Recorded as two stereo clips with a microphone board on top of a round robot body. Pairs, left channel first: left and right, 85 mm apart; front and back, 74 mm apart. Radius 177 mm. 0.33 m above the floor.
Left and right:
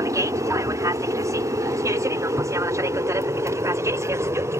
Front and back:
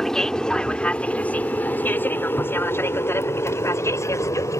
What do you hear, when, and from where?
0.0 s an aircraft: 80° right; by 4.6 s 40° right